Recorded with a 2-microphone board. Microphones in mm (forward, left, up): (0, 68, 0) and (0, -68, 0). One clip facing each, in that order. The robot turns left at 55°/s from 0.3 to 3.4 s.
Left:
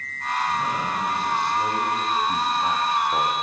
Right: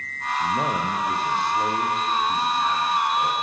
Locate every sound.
0.4 s a man speaking: 95° right, 5.5 m; by 3.3 s 105° left, 5.5 m